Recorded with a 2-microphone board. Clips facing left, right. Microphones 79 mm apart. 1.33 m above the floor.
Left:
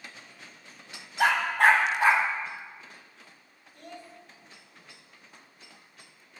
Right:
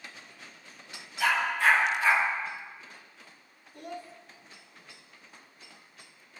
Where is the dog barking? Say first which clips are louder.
Left 4 dB; 55° left (ahead or behind), 3.5 m; by 2.2 s 60° left (ahead or behind), 4.5 m.